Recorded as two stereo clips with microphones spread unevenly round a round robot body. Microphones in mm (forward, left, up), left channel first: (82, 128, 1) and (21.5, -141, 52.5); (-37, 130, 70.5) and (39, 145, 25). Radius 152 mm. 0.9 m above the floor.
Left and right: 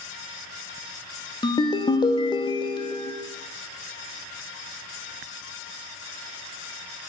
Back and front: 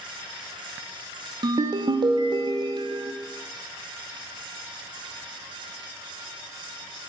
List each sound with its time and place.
1.4 s a ringtone: 5° left, 0.8 m